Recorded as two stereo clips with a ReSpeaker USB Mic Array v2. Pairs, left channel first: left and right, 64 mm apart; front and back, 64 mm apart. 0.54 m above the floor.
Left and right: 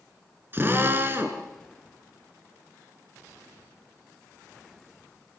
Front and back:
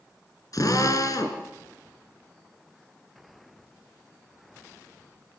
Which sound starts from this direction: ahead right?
A drill, at 0.5 s.